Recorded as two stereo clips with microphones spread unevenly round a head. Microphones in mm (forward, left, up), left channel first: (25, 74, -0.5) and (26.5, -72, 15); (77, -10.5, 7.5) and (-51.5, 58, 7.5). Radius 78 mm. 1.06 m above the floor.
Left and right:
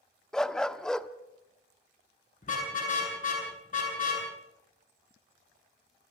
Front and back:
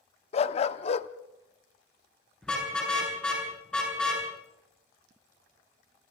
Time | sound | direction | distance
0.3 | a dog barking | straight ahead | 0.7 m
2.4 | a car horn | 55° left | 9 m